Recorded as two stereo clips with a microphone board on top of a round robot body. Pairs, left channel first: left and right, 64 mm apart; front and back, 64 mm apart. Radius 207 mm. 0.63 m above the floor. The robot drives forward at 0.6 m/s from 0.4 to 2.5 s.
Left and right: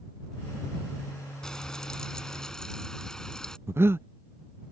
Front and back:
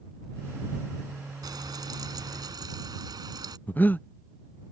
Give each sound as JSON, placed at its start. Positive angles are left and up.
{"t": 1.4, "sound": "frying", "azimuth_deg": 170}
{"t": 3.7, "sound": "breathing", "azimuth_deg": -55}